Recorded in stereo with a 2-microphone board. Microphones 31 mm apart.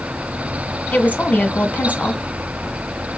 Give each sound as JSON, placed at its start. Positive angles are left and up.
{"t": 0.9, "sound": "a woman speaking", "side_deg": 60, "distance_m": 1.8}